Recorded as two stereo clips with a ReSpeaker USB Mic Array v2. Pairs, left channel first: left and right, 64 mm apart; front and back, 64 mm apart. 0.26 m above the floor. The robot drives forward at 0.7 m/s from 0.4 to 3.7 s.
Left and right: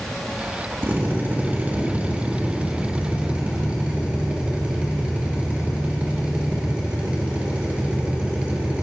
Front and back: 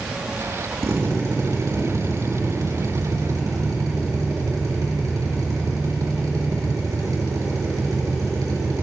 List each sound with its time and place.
0.8 s a drill: 145° right, 3 m; by 8.8 s 160° right, 4.5 m